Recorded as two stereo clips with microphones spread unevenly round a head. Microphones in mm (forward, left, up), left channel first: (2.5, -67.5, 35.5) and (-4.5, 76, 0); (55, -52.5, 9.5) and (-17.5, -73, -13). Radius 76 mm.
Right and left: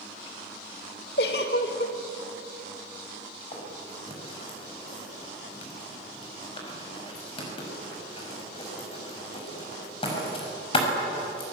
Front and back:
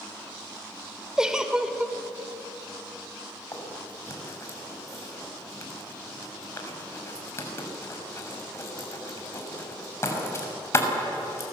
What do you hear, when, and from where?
1.2 s a giggle: 80° right, 2.5 m
3.5 s writing: 35° right, 6.5 m